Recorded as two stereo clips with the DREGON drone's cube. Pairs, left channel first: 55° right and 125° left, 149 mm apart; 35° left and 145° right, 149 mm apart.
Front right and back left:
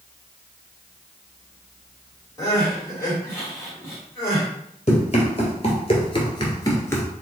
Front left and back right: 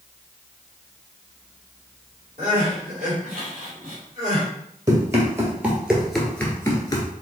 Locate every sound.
2.4 s crying: 125° right, 2.5 m
4.9 s running footsteps: 85° right, 2 m; by 7.1 s 10° left, 1.5 m